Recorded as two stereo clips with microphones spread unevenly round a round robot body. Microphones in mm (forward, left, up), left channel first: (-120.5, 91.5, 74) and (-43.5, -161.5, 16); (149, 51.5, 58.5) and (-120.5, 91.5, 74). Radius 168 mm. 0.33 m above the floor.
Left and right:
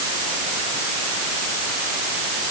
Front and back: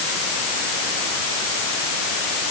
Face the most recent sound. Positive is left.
No sound to turn to.